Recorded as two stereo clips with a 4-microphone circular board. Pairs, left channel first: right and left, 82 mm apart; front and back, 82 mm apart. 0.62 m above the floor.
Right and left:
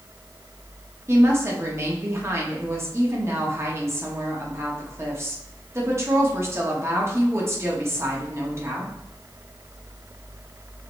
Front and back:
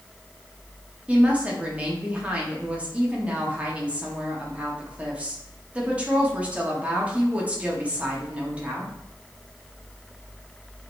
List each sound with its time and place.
1.1 s a woman speaking: 120° left, 1.2 m